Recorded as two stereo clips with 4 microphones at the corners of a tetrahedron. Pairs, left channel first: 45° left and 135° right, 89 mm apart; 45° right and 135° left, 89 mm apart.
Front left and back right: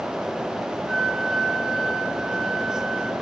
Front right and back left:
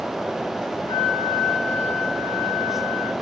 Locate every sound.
0.9 s a flute: 45° right, 3 m